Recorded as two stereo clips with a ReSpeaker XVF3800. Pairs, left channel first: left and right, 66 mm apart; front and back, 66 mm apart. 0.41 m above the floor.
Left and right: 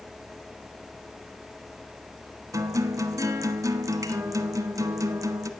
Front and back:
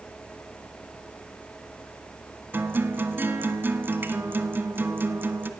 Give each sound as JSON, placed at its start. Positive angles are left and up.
{"t": 2.5, "sound": "a guitar", "azimuth_deg": -120, "distance_m": 1.0}